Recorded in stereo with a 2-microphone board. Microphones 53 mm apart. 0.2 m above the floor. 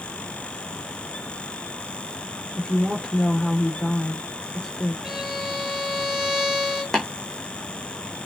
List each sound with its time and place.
2.6 s a woman speaking: 10° left (ahead or behind), 3 m
5.0 s a violin: 5° right (ahead or behind), 3 m
6.9 s tapping: 10° left (ahead or behind), 4 m